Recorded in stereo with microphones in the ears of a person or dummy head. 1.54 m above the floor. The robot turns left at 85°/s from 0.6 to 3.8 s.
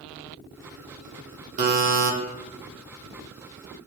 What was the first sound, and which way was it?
A buzzer, 40° right.